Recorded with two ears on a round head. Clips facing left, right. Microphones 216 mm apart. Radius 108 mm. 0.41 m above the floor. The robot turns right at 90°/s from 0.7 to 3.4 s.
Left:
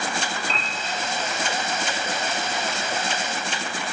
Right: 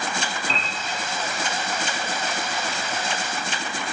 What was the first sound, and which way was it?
A piano, 65° right (ahead or behind).